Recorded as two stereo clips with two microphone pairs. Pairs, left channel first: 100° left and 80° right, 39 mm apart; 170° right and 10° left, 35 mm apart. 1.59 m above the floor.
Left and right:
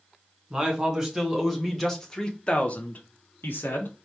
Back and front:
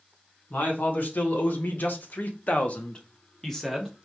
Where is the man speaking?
155° right, 1.8 m; by 4.0 s 100° left, 1.1 m.